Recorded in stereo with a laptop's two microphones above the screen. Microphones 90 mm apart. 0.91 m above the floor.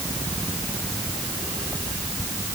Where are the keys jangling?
I don't hear keys jangling.